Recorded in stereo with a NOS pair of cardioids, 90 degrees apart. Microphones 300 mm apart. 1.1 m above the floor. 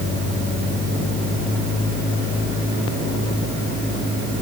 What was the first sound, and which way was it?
Only background noise.